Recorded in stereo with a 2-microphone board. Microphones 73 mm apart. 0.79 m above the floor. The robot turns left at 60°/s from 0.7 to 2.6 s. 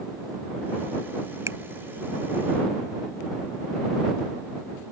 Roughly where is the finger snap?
Right.